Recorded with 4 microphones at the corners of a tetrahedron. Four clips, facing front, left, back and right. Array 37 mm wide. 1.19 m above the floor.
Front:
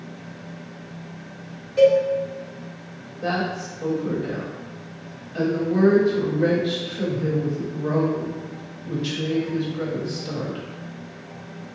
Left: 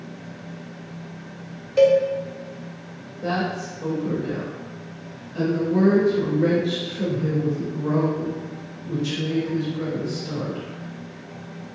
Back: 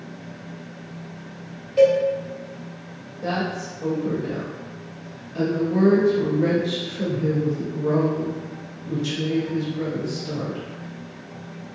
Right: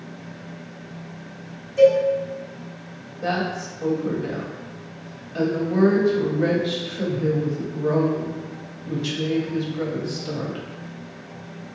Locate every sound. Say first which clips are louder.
1.8 s a cowbell: right 1 dB, front 1 dB; 105° left, 0.8 m
3.2 s a woman speaking: even, front 1 dB; 60° right, 1.1 m